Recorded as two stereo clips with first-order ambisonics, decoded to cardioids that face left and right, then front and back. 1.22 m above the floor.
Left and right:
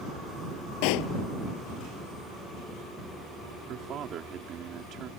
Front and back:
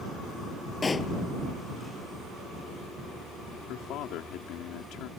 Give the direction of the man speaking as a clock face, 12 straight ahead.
1 o'clock.